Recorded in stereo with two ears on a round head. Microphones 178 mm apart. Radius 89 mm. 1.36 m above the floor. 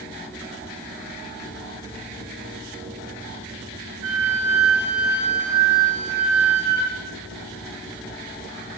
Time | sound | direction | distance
4.0 | a flute | 85° right | 2 m